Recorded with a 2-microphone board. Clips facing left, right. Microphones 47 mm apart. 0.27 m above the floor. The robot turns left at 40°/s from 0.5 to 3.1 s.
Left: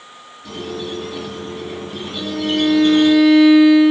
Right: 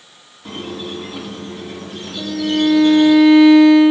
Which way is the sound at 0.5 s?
140° right.